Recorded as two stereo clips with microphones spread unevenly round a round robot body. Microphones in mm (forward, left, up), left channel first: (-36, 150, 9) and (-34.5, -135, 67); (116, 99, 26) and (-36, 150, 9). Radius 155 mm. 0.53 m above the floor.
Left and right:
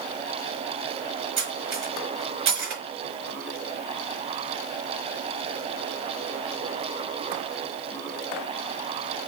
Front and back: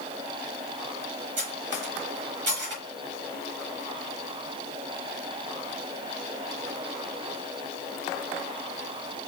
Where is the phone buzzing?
I don't hear a phone buzzing.